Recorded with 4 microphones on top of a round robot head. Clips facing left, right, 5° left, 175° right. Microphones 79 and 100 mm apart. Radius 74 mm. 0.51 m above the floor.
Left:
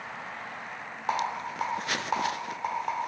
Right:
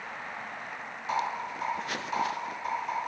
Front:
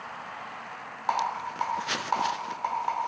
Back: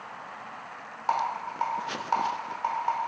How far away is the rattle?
About 1.1 m.